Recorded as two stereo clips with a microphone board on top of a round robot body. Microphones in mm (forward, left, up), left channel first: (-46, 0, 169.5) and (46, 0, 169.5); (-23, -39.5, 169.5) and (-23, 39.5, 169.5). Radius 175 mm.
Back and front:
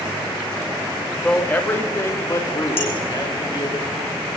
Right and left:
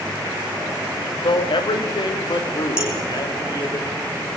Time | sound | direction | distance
1.2 | a man speaking | 100° right | 2 m
2.8 | dishes clattering | 170° left | 5 m